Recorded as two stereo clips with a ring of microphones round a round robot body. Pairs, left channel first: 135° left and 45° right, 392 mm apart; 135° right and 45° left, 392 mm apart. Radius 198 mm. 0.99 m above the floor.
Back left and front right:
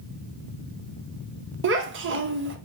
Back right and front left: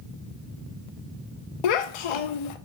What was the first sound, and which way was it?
A child speaking, 110° right.